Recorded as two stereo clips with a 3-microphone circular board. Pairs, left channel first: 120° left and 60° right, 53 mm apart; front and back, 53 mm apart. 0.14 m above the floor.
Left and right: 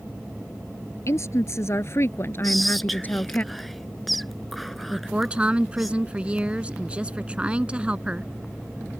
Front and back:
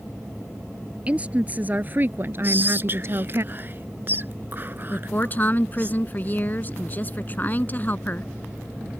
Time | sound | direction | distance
1.1 | a woman speaking | 120° left | ?
2.4 | whispering | 150° right | ?
4.9 | a woman speaking | 10° right | ?